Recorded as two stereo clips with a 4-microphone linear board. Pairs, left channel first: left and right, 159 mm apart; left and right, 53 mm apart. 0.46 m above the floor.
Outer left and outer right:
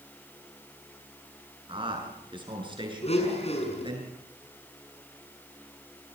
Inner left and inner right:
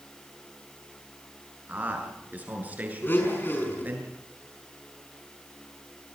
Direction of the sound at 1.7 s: 30° right (ahead or behind).